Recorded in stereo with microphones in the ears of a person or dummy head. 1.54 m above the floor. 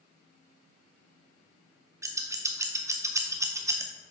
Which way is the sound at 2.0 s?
10° right (ahead or behind).